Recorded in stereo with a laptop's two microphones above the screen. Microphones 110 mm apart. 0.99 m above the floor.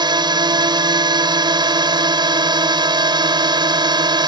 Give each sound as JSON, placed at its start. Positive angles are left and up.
{"t": 0.0, "sound": "a drone", "side_deg": -45}